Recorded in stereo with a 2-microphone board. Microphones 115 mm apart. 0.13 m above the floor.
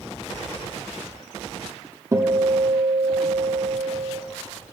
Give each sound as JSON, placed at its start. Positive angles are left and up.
{"t": 2.1, "sound": "a guitar", "side_deg": -25, "distance_m": 1.0}